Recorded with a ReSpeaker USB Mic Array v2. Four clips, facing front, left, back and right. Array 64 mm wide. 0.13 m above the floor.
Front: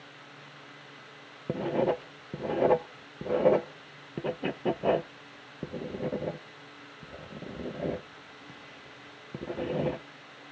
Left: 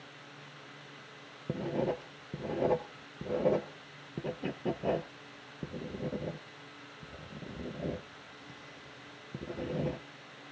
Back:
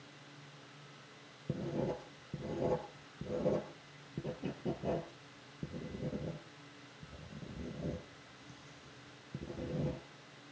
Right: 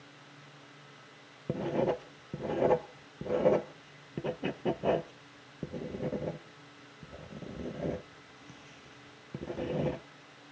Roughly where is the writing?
Ahead.